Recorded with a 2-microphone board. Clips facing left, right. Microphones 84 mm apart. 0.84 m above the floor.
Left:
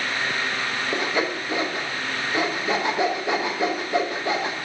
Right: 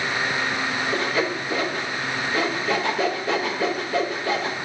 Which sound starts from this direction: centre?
Sawing, at 0.9 s.